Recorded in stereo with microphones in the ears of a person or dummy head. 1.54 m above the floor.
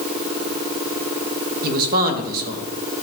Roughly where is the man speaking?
Right.